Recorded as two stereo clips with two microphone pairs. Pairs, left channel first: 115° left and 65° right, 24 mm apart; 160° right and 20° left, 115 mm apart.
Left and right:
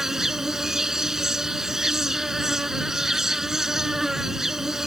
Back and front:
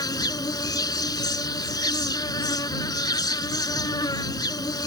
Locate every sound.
0.0 s an insect: 120° right